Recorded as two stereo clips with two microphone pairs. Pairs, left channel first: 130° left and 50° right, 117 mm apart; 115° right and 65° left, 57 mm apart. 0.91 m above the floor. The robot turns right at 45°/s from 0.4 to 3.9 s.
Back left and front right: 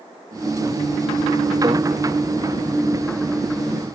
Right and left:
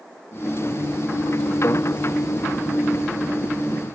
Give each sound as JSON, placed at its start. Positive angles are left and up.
{"t": 1.6, "sound": "a microwave", "azimuth_deg": -95, "distance_m": 1.2}